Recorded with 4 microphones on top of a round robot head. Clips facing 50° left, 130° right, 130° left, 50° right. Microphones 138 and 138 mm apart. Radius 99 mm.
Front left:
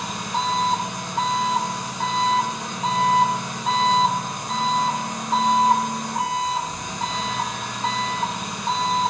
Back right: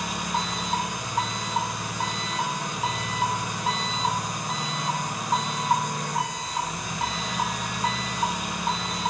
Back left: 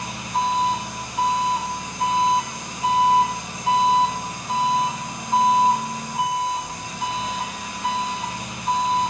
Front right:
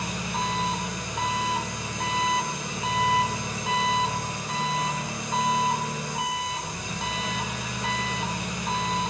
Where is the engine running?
45° right, 1.8 m.